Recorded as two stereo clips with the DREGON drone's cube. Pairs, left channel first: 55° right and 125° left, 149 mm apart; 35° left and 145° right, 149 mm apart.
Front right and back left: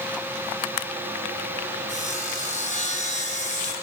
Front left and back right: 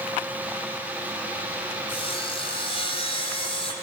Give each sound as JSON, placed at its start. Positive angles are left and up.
{"t": 1.9, "sound": "sawing", "azimuth_deg": -20, "distance_m": 7.5}